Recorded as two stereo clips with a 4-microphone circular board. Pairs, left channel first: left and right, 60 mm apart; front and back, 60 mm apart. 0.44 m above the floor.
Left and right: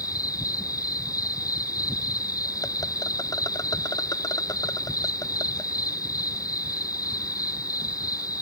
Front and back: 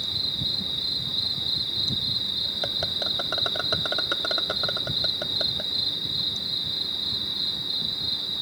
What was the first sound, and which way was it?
An insect, 90° left.